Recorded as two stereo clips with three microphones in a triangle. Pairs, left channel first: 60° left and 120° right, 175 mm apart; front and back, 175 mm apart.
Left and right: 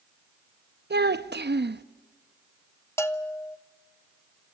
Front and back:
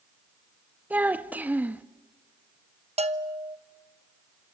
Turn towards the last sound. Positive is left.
turn(degrees=135)